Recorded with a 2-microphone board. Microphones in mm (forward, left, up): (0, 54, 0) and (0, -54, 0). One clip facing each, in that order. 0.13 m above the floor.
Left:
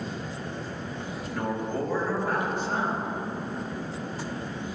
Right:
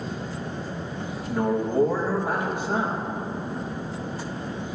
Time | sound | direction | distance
1.3 | a man speaking | 15° right (ahead or behind) | 4 m